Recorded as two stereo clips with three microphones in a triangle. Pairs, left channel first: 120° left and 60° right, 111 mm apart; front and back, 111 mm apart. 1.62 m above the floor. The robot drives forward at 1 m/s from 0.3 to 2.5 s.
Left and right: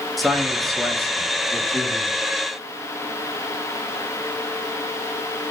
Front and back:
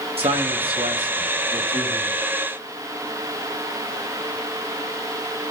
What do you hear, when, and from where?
0.2 s a man speaking: 150° right, 3.5 m; by 2.2 s 160° right, 5 m